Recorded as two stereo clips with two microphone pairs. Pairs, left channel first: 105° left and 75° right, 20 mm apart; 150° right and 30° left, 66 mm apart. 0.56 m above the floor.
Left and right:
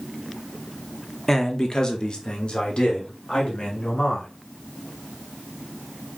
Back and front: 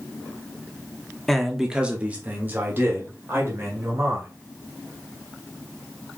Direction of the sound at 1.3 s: 140° left.